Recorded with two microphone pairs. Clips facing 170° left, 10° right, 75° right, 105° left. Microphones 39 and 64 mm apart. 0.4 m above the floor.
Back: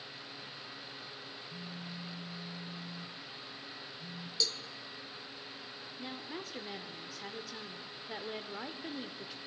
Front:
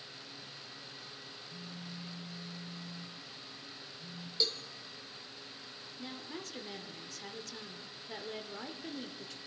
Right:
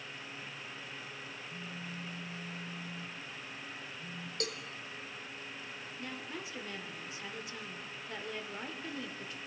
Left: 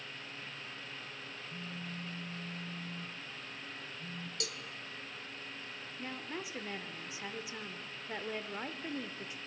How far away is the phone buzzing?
About 1.1 m.